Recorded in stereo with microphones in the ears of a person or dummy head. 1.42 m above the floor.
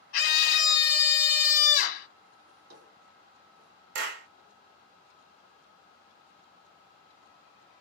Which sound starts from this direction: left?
A scream, at 0.1 s.